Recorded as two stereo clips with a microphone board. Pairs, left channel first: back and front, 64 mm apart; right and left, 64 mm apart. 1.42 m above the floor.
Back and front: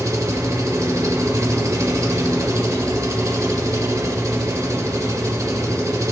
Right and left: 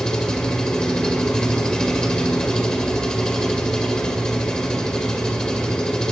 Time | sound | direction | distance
0.0 | an engine running | 15° right | 2 m